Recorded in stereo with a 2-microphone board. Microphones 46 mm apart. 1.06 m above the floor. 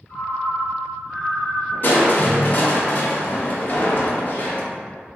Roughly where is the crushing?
Left.